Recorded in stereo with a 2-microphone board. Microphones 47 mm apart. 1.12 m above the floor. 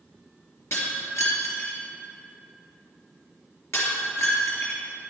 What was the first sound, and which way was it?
Breaking glass, 70° left (ahead or behind).